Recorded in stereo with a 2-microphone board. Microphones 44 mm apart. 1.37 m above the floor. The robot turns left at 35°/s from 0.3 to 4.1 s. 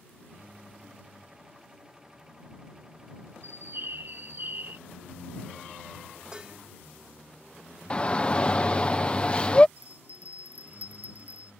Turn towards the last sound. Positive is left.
turn(degrees=-40)  # may be behind; listen again after turning